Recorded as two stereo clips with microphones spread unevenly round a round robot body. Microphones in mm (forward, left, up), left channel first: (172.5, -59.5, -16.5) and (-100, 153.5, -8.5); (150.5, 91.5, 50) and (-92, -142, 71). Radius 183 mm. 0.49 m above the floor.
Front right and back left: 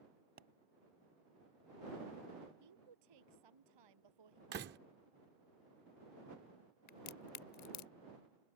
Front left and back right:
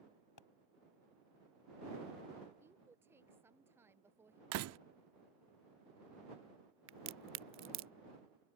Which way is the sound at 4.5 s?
165° right.